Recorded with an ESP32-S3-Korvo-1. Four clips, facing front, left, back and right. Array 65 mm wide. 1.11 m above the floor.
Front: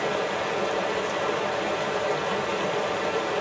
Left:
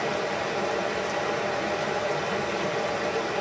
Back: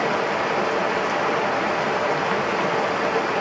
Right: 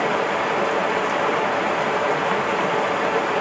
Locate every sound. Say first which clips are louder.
0.0 s running water: right 7 dB, back 4 dB; 125° right, 0.7 m